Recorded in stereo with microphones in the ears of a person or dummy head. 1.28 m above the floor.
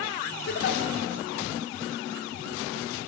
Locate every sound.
0.5 s a giggle: 60° left (ahead or behind), 2.0 m